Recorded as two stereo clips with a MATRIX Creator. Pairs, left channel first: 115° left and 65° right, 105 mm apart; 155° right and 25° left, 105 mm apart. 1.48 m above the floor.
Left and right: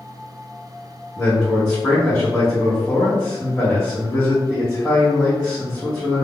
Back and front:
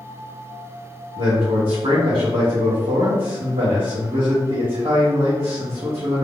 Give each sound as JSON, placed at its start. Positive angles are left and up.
{"t": 1.2, "sound": "a man speaking", "azimuth_deg": 35, "distance_m": 1.1}